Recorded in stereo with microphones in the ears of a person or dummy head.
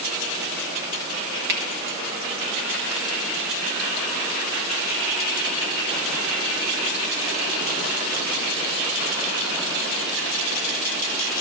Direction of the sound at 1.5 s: 50° right (ahead or behind).